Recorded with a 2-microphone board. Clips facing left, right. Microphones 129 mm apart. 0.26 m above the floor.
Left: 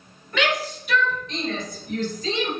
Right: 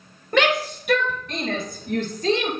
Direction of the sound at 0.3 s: 60° right (ahead or behind).